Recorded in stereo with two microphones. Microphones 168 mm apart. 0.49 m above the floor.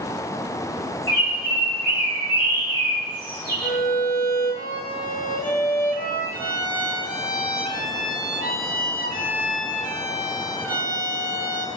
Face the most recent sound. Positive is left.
turn(degrees=55)  # may be behind; listen again after turning